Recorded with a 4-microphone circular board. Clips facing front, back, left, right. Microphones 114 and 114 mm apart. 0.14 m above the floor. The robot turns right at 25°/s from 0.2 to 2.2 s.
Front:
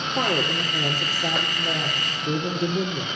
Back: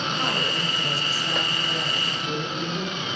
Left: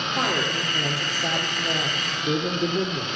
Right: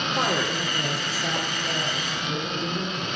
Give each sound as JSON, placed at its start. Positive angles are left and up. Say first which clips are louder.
{"t": 0.2, "sound": "a woman speaking", "louder": "front 3 dB, even", "azimuth_deg": -5, "distance_m": 2.5}